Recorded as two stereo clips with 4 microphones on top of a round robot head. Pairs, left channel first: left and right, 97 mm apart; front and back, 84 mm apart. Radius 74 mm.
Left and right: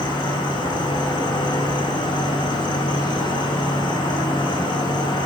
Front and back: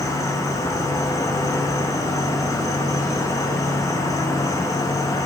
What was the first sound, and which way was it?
An insect, 50° left.